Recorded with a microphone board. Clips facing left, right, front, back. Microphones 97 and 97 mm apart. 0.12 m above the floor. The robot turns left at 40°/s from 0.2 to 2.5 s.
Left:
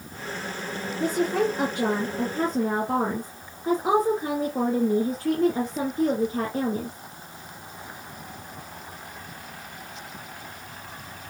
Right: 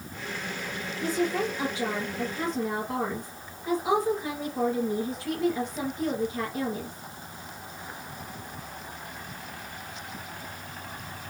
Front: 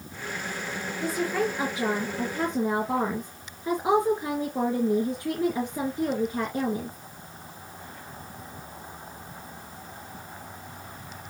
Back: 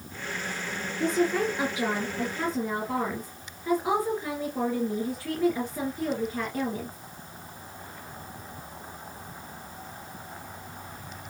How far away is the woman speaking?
About 2.5 m.